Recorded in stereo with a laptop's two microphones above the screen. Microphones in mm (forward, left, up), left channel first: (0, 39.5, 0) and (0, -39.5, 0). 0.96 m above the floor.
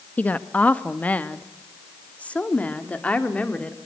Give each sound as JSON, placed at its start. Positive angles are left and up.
{"t": 0.2, "sound": "a woman speaking", "side_deg": 20, "distance_m": 1.4}